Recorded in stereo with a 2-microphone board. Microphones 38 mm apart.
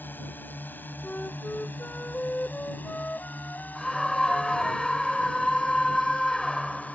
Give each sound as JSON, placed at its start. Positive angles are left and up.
{"t": 0.0, "sound": "a drone", "side_deg": 65}
{"t": 1.0, "sound": "a flute", "side_deg": 45}
{"t": 3.8, "sound": "a scream", "side_deg": 15}